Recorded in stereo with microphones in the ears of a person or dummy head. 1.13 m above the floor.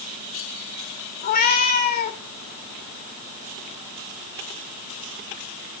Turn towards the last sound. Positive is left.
turn(degrees=60)  # may be behind; listen again after turning